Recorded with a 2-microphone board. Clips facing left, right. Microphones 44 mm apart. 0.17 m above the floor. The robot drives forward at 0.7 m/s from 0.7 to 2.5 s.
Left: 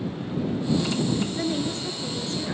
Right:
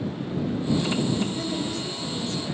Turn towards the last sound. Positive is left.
turn(degrees=55)  # may be behind; listen again after turning